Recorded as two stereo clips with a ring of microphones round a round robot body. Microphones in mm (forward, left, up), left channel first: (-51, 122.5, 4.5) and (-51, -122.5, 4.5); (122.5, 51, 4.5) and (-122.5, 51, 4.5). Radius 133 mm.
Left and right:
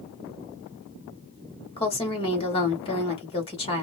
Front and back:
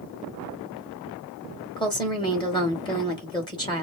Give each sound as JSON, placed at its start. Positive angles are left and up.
{"t": 1.8, "sound": "a woman speaking", "azimuth_deg": 50, "distance_m": 1.3}